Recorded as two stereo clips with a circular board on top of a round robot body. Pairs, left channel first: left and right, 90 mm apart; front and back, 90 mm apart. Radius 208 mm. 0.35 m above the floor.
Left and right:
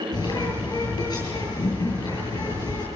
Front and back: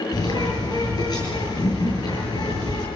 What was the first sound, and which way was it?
A bird, 45° left.